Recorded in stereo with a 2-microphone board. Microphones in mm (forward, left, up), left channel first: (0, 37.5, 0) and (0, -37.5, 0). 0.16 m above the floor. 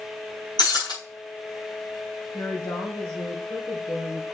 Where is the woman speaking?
65° left (ahead or behind), 3.5 m.